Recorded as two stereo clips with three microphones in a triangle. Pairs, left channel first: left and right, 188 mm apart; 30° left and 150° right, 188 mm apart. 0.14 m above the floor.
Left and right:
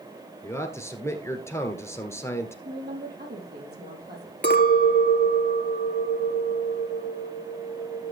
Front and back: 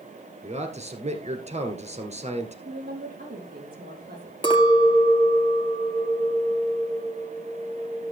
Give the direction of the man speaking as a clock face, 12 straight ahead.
7 o'clock.